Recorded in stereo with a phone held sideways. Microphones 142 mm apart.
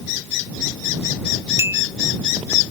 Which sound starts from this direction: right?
A clink, at 1.6 s.